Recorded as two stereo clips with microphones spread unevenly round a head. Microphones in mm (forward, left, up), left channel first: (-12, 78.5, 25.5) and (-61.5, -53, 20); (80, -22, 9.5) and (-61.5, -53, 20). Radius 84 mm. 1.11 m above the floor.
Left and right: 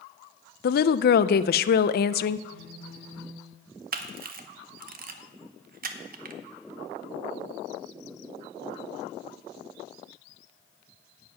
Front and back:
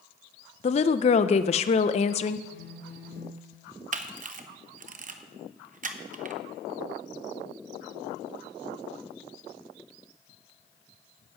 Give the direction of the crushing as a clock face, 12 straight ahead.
No crushing in this recording.